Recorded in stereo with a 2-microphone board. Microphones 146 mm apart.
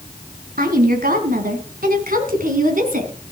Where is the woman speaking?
75° right (ahead or behind), 3 m; by 3.1 s 65° right (ahead or behind), 3.5 m.